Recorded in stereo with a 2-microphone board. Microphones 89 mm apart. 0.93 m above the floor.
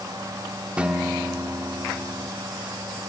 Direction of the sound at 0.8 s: 15° right (ahead or behind).